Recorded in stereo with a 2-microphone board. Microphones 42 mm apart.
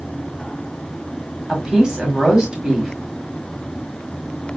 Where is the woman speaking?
15° right (ahead or behind), 1.3 m.